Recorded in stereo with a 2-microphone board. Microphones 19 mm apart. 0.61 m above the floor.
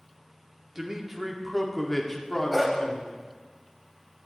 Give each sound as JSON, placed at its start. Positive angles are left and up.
{"t": 0.8, "sound": "a man speaking", "side_deg": -25, "distance_m": 1.2}
{"t": 2.5, "sound": "a dog barking", "side_deg": -15, "distance_m": 1.4}